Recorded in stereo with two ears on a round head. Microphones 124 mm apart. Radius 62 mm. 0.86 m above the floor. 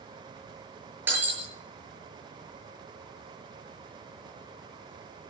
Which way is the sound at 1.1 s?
15° right (ahead or behind).